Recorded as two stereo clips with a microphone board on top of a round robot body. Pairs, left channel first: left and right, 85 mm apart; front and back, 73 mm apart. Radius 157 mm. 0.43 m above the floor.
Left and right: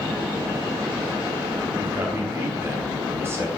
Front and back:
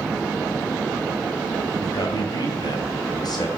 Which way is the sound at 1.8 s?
30° right.